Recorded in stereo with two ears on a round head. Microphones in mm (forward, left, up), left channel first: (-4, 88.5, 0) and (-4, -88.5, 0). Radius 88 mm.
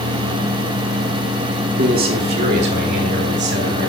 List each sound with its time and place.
1.8 s a man speaking: 50° right (ahead or behind), 2 m; by 3.9 s 60° right (ahead or behind), 3.5 m